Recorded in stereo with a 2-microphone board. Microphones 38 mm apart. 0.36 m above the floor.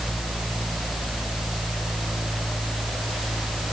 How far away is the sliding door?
I don't hear a sliding door.